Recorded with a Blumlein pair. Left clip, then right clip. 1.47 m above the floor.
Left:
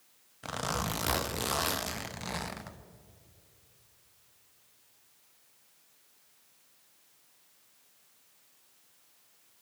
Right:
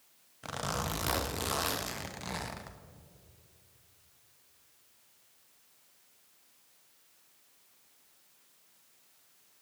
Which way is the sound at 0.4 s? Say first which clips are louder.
Left 2 dB; 5° left.